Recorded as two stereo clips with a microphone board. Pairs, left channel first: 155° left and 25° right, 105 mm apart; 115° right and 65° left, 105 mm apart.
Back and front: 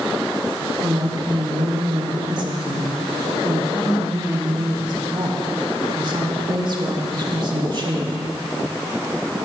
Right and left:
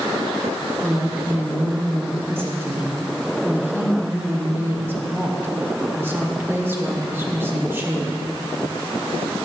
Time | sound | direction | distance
0.8 | a woman speaking | 5° left | 1.7 m